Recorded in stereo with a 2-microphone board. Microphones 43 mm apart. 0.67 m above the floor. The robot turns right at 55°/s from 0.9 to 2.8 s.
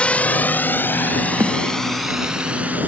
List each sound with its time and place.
0.0 s a drone: 30° left (ahead or behind); by 2.9 s 40° right (ahead or behind)
1.4 s a snare drum: 65° right (ahead or behind); by 1.6 s 75° right (ahead or behind)